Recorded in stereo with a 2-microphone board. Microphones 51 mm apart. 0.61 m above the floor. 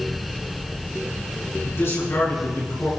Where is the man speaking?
65° left (ahead or behind), 8 m; by 2.9 s 70° left (ahead or behind), 8.5 m.